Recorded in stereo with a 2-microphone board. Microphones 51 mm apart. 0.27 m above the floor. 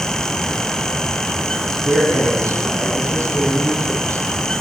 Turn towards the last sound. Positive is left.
turn(degrees=35)  # may be behind; listen again after turning